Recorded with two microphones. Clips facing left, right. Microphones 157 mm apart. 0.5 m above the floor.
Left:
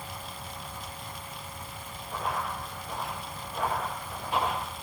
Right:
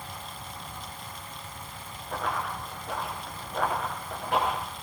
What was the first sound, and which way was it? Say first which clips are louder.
Running footsteps: right 1 dB; 75° right (ahead or behind).